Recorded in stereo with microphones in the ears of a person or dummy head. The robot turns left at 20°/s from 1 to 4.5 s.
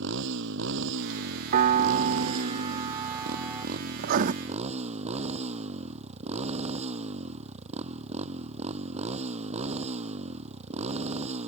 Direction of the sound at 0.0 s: 75° right.